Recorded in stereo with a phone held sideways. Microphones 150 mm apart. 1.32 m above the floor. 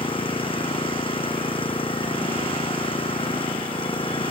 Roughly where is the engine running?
Left.